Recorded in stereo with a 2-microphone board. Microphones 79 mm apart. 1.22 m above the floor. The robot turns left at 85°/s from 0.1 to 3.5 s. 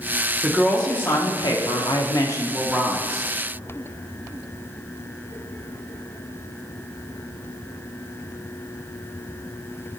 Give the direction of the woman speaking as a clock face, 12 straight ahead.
5 o'clock.